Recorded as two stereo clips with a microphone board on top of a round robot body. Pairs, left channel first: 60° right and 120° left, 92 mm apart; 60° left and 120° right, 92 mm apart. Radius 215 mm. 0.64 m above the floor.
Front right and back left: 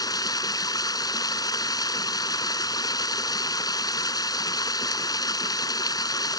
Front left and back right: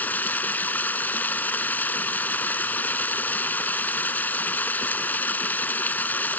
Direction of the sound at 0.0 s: 10° right.